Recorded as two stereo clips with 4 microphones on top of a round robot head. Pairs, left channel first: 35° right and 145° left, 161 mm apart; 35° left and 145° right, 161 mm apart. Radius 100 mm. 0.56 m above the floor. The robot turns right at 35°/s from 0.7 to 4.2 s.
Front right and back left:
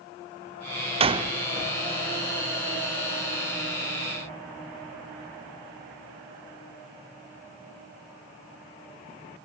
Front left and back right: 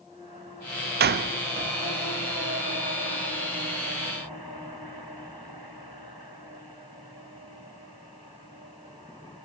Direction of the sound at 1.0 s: 160° right.